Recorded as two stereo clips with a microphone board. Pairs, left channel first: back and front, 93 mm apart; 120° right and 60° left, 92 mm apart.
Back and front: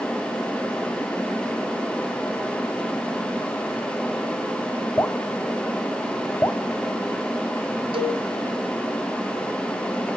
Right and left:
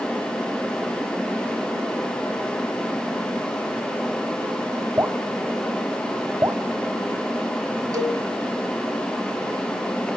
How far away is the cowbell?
About 1.5 m.